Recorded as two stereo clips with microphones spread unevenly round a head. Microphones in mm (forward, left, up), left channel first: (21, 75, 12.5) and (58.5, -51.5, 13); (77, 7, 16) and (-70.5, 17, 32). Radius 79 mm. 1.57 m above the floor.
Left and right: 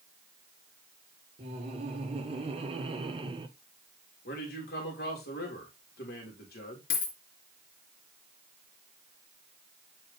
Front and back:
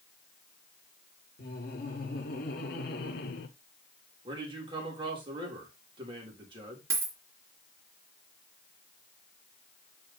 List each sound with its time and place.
1.4 s laughter: 30° right, 3.5 m; by 3.5 s 20° right, 1.5 m
4.2 s a man speaking: 115° left, 3.5 m
6.9 s a dropped coin: 110° left, 3 m